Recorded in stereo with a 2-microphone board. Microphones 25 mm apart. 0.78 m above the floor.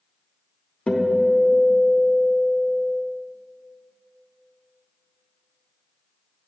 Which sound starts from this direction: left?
A guitar, at 0.9 s.